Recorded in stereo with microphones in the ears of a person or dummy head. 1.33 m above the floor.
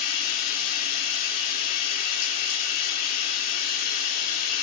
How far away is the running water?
About 1.0 m.